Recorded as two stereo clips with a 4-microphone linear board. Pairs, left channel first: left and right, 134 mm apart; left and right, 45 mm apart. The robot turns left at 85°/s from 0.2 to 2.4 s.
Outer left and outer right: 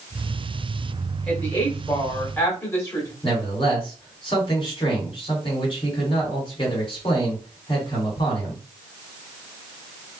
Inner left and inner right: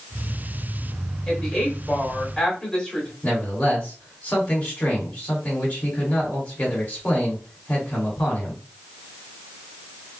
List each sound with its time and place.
1.3 s a woman speaking: 5° left (ahead or behind), 1.4 m; by 3.1 s 20° left (ahead or behind), 1.4 m
3.2 s a man speaking: 40° left (ahead or behind), 2.0 m